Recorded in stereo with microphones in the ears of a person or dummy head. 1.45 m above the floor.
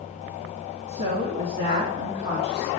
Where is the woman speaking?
40° right (ahead or behind), 2 m.